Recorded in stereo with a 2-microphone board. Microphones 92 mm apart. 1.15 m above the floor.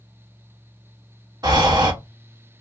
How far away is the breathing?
About 0.8 m.